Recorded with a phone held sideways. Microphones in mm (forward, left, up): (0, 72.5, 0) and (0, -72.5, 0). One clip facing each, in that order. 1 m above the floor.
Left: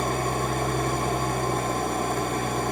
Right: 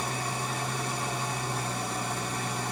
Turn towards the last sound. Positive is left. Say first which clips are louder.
# left 7 dB
turn(degrees=55)  # may be behind; listen again after turning